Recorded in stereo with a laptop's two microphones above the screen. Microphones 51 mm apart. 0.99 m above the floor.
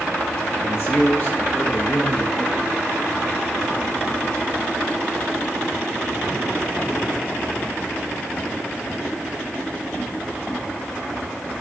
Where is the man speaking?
80° left, 1.4 m; by 2.9 s 30° right (ahead or behind), 1.6 m.